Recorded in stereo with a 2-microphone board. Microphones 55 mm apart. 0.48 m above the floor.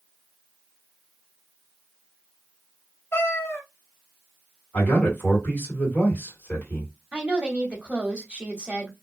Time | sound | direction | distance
3.1 | a cat meowing | 50° left (ahead or behind) | 0.9 m
4.7 | a man speaking | 40° left (ahead or behind) | 2 m
7.1 | a woman speaking | 25° right (ahead or behind) | 1.1 m